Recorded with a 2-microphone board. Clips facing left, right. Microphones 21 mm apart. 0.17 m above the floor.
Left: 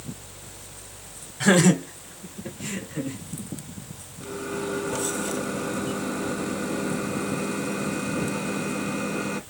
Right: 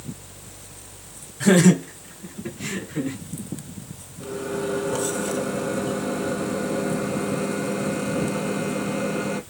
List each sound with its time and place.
1.4 s laughter: 20° left (ahead or behind), 1.3 m; by 3.2 s 45° right (ahead or behind), 2.5 m
4.2 s a microwave: 5° right (ahead or behind), 1.1 m